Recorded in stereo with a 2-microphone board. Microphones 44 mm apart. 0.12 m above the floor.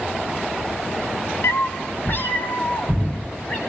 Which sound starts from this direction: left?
A cat meowing, at 1.4 s.